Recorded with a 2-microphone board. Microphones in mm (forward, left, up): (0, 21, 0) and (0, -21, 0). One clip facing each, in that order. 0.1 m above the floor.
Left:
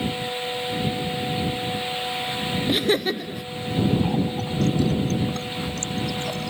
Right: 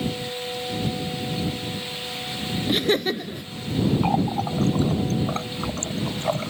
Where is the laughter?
Centre (ahead or behind).